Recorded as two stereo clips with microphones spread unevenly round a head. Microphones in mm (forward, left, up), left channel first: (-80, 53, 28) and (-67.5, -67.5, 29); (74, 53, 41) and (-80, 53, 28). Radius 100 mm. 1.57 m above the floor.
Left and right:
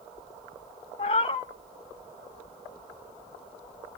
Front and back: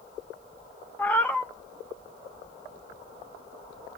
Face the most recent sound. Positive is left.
turn(degrees=70)